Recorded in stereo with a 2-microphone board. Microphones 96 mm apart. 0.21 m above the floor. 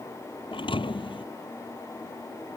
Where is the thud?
70° left (ahead or behind).